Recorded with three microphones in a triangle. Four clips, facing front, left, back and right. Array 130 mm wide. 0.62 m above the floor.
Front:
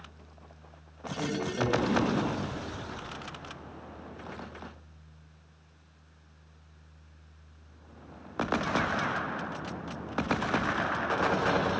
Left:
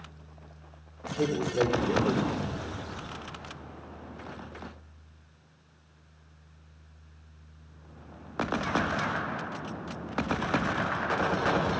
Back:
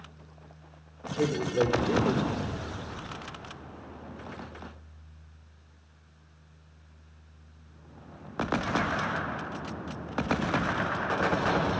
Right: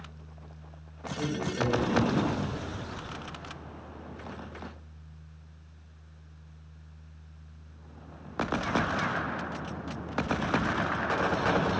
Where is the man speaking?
135° left, 2.5 m.